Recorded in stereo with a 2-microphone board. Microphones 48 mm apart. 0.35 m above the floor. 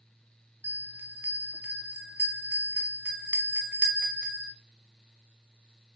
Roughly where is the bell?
Right.